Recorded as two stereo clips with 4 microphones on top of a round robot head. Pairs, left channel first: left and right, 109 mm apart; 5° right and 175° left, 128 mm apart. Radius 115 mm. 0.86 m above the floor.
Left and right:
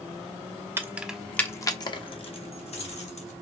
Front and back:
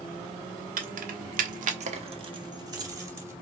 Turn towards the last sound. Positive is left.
turn(degrees=105)